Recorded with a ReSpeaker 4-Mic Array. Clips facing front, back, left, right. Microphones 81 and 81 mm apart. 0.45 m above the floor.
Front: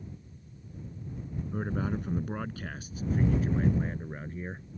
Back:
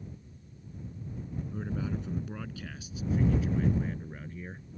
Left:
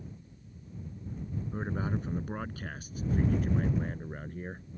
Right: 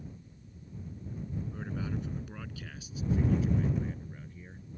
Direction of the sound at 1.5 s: 40° left.